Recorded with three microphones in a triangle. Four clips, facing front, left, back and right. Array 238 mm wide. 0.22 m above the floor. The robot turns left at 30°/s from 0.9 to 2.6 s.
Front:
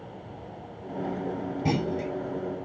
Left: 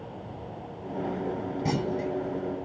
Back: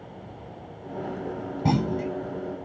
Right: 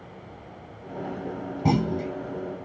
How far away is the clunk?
About 1.3 m.